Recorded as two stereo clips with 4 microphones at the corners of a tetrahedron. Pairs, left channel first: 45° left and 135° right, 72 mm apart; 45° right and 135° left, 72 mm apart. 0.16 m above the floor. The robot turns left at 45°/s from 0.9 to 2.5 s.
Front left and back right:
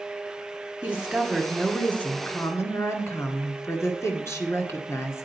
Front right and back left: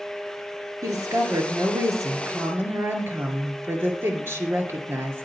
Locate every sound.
0.8 s a woman speaking: 155° left, 1.9 m; by 5.2 s 85° left, 1.9 m